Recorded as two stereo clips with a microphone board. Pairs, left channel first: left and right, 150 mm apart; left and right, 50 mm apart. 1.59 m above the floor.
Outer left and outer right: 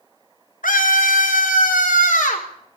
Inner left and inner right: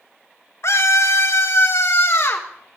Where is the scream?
65° left (ahead or behind), 1.0 m; by 2.5 s 55° left (ahead or behind), 2 m.